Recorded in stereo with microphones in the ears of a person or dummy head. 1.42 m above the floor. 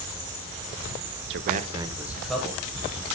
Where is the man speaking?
60° right (ahead or behind), 0.8 m; by 3.0 s 15° left (ahead or behind), 2.5 m.